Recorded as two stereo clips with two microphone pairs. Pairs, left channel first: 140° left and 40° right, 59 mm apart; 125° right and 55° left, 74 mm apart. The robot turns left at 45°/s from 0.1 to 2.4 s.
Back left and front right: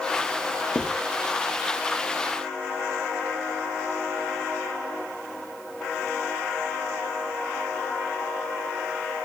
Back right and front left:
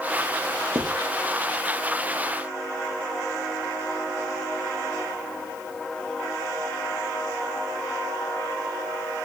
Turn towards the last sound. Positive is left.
turn(degrees=5)